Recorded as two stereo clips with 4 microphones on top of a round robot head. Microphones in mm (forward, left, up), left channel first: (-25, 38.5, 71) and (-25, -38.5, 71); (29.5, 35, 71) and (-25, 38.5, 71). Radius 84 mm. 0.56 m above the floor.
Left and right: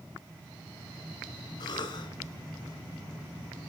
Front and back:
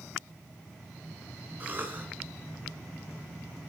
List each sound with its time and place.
1.6 s a cough: 120° left, 7.5 m